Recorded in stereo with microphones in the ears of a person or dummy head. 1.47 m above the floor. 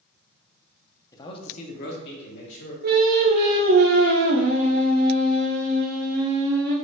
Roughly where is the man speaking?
Centre.